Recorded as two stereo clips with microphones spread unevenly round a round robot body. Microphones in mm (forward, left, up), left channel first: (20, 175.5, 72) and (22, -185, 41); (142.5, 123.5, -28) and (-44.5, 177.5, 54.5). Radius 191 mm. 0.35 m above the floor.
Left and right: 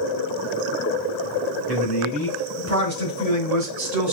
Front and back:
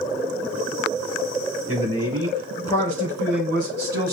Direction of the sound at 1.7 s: 140° right.